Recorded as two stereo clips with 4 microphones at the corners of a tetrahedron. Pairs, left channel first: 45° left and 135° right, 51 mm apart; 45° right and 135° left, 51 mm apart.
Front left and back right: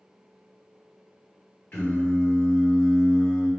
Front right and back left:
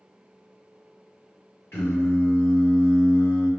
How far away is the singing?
About 1.9 m.